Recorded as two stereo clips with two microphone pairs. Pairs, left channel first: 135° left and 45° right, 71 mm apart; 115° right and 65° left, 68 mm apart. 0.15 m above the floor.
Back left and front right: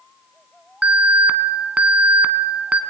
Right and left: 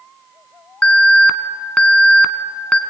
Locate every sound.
0.8 s an alarm: 75° right, 1.1 m